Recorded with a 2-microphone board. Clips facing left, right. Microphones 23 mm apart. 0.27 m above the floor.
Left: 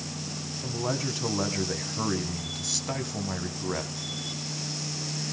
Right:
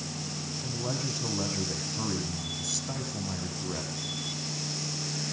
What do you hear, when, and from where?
0.6 s a man speaking: 25° left (ahead or behind), 2 m